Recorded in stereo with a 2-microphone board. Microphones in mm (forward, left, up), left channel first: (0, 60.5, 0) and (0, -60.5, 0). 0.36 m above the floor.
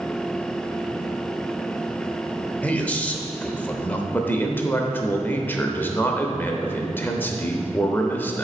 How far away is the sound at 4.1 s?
About 0.8 m.